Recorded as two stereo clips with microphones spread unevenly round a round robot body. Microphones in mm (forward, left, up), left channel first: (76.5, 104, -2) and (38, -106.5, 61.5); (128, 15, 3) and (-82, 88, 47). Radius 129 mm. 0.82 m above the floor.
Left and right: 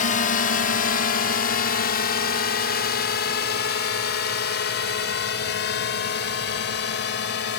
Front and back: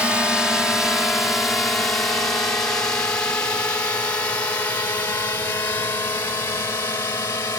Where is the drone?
65° left; by 7.6 s 55° left.